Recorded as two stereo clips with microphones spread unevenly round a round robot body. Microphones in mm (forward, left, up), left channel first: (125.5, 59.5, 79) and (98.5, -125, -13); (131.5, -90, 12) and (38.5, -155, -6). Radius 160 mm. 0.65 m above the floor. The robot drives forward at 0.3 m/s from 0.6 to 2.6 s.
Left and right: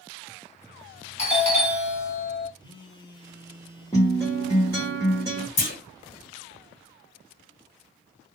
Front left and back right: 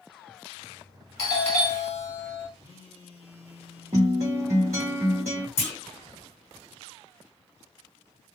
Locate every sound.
1.2 s a doorbell: 15° left, 2.0 m; by 2.5 s 20° left, 1.7 m
2.6 s a phone buzzing: 5° left, 1.2 m
3.9 s a guitar: 165° left, 1.0 m
5.6 s a clunk: 50° left, 1.7 m